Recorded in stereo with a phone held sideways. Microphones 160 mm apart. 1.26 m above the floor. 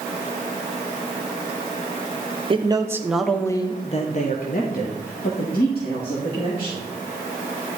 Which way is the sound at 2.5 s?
35° right (ahead or behind).